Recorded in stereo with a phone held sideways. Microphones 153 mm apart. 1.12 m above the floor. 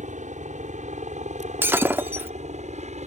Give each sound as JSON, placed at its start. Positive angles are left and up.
{"t": 0.0, "sound": "a helicopter", "side_deg": -50}
{"t": 1.6, "sound": "breaking glass", "side_deg": -15}